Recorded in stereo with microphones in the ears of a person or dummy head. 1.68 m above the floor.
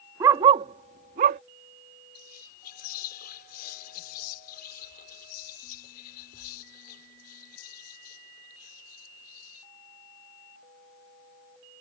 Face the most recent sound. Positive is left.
turn(degrees=50)  # may be behind; listen again after turning